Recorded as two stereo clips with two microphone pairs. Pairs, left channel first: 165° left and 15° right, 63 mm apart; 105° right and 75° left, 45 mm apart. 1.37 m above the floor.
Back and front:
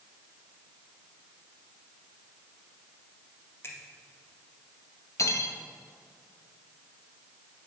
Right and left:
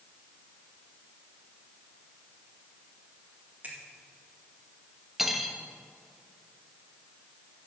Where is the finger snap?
125° left, 2 m.